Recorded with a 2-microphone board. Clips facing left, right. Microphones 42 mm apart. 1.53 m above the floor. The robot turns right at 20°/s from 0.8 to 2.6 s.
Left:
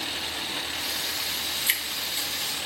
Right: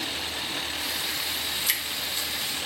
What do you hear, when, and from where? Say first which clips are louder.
1.7 s dripping: left 1 dB; 30° left (ahead or behind), 1.1 m; by 2.3 s 20° left (ahead or behind), 1.1 m